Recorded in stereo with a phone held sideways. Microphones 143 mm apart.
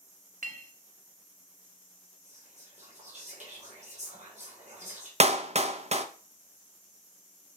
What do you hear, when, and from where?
0.4 s a clink: 65° right (ahead or behind), 0.7 m
2.2 s whispering: 55° right (ahead or behind), 3.5 m
5.2 s a clap: 50° right (ahead or behind), 0.6 m